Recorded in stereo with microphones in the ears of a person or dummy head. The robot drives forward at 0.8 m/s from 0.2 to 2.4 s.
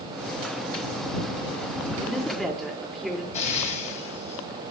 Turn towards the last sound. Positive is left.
turn(degrees=35)  # may be behind; listen again after turning